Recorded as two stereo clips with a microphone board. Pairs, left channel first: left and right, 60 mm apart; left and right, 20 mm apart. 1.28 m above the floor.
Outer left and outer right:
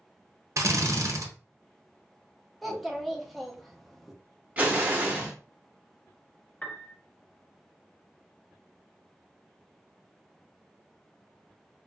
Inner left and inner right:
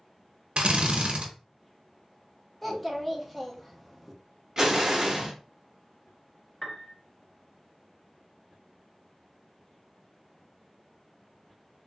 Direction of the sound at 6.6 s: 20° left (ahead or behind).